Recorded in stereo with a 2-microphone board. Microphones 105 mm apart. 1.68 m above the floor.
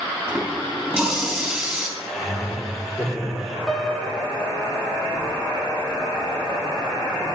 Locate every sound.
0.3 s a running tap: 15° right (ahead or behind), 3 m
2.0 s laughter: centre (ahead or behind), 3.5 m
3.7 s a piano: 5° left (ahead or behind), 1.2 m